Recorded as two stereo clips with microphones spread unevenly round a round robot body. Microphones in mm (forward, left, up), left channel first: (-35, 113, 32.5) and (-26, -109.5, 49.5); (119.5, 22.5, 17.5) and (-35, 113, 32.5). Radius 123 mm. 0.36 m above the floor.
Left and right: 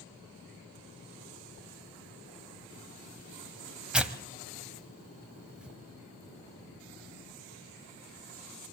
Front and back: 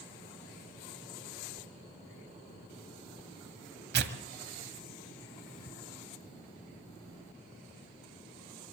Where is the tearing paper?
175° right, 1.7 m.